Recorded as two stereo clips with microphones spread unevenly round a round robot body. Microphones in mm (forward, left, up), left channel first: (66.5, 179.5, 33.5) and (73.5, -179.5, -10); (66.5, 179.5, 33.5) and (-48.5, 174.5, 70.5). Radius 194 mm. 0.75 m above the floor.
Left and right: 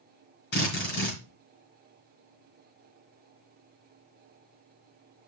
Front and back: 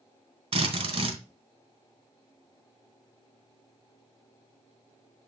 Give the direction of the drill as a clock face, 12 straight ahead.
7 o'clock.